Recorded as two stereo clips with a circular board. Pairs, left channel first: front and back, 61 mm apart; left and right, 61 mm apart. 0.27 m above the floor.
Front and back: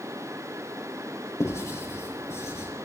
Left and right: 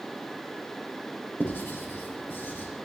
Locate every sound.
1.4 s writing: 40° left, 6 m